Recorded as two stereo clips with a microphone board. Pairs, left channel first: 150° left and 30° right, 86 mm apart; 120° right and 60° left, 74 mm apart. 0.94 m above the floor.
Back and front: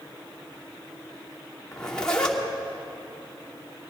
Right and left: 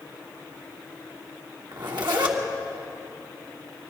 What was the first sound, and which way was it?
A zipper, 70° left.